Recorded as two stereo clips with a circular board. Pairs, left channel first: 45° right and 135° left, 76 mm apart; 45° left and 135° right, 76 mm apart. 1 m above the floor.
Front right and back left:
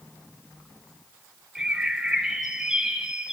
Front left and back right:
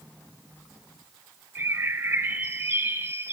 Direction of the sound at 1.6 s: 155° right.